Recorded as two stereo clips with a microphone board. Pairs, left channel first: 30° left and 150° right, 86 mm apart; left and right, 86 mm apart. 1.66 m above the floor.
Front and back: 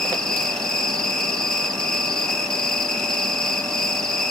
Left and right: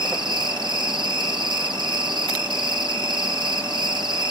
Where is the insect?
55° right, 1.6 m.